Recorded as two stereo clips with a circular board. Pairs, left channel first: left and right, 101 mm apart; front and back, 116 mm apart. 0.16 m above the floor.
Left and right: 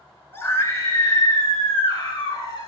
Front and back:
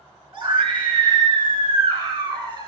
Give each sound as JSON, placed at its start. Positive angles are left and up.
{"t": 0.3, "sound": "a scream", "azimuth_deg": 145, "distance_m": 2.5}